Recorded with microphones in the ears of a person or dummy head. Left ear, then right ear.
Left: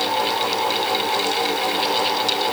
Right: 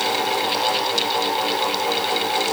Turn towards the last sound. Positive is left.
No sound to turn to.